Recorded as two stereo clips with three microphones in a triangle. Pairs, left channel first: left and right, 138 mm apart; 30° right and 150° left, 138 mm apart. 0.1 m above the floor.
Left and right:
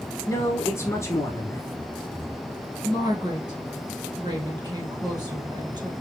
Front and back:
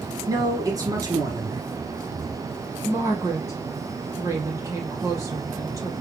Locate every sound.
0.3 s a man speaking: 130° left, 1.3 m
2.8 s a woman speaking: 145° right, 3 m